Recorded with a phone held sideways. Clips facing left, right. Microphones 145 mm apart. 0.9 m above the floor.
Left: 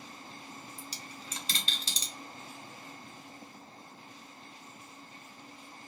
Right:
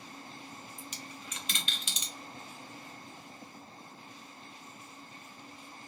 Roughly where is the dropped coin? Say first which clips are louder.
Even; left.